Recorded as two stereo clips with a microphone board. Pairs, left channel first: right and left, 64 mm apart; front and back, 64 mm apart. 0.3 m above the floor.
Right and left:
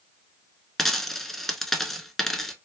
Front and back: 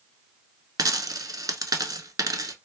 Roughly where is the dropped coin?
Behind.